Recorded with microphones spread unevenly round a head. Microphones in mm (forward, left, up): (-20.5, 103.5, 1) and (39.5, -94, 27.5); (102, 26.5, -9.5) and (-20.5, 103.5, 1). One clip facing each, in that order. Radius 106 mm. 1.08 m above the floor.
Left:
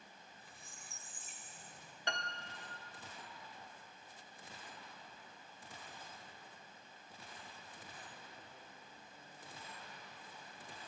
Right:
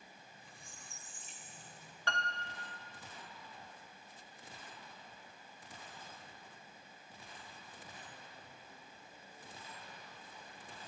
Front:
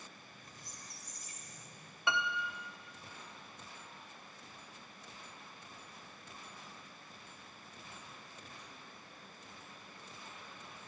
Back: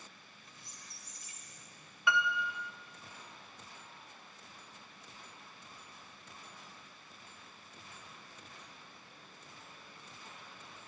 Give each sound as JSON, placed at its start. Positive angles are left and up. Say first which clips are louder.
{"t": 0.2, "sound": "a squeak", "louder": "right 1 dB, front 3 dB", "azimuth_deg": 20, "distance_m": 2.5}
{"t": 2.1, "sound": "a piano", "louder": "right 2 dB, back 3 dB", "azimuth_deg": 30, "distance_m": 1.7}